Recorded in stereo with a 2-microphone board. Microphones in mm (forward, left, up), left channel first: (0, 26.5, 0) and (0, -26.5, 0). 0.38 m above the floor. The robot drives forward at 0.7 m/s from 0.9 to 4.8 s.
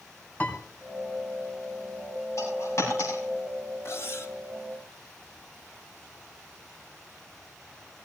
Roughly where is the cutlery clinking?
Left.